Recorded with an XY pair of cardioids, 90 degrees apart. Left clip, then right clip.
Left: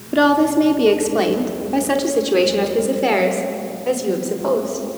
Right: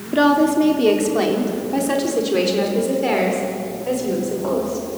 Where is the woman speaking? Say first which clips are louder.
Left 1 dB; 15° left, 3.5 m; by 4.9 s 45° left, 5 m.